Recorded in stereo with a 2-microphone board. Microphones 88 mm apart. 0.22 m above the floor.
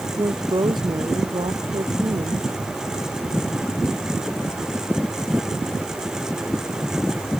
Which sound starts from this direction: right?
A woman speaking, at 0.2 s.